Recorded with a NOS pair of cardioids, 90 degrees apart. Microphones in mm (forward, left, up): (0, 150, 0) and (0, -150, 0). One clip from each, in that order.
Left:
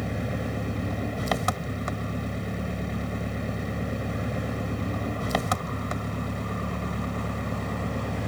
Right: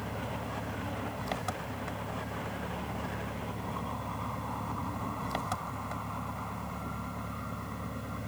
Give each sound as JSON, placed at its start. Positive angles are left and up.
{"t": 0.0, "sound": "an engine running", "azimuth_deg": 70}